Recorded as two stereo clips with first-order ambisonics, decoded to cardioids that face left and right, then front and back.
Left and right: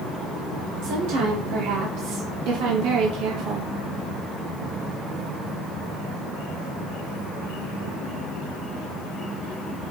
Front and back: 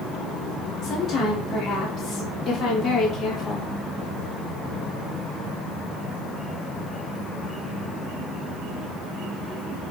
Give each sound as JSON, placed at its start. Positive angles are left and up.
{"t": 0.8, "sound": "a woman speaking", "azimuth_deg": -70, "distance_m": 4.0}